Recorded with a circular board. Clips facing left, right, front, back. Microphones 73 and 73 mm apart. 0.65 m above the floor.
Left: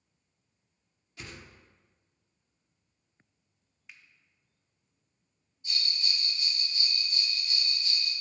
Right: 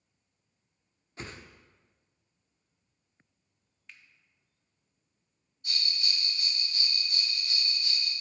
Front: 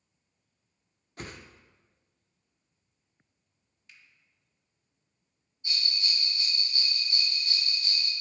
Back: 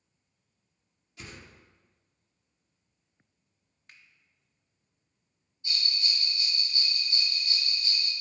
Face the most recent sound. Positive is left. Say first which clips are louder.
# even, even
turn(degrees=-65)